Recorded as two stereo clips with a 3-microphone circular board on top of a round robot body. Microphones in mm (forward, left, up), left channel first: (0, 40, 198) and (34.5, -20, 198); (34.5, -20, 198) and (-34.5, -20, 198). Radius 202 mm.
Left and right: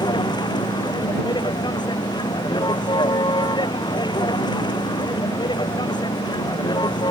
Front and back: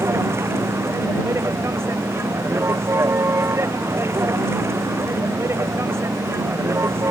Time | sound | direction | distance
0.0 | a vehicle | 125° left | ?